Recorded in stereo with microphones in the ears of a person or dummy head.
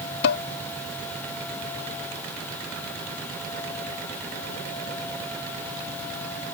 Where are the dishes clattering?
60° left (ahead or behind).